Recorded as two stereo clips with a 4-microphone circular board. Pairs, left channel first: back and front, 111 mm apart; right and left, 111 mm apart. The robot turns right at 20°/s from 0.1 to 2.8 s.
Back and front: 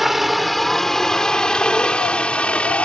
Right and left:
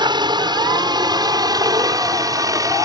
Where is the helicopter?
85° left; by 2.9 s 110° left.